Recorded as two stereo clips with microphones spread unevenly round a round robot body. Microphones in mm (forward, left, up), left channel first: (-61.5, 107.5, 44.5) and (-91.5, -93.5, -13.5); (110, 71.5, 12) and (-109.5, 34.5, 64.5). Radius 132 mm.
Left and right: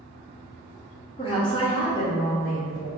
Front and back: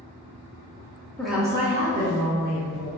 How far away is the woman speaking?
About 0.7 m.